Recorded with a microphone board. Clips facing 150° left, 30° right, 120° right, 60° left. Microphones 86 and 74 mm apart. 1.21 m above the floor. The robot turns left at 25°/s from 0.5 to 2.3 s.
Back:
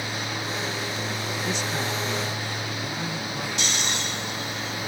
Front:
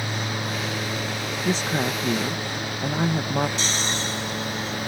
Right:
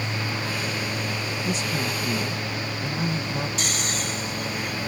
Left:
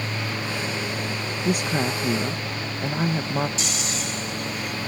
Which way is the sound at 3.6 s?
85° right.